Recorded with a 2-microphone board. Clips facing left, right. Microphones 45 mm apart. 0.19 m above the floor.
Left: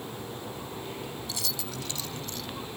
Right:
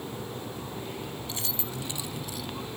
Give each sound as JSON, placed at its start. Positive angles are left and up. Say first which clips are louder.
{"t": 1.3, "sound": "keys jangling", "louder": "even", "side_deg": -30}